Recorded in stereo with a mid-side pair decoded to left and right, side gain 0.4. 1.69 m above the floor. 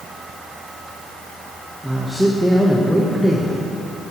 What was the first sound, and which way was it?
A man speaking, 5° right.